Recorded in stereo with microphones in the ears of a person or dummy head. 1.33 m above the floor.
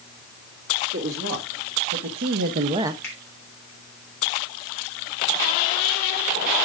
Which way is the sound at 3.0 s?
10° left (ahead or behind).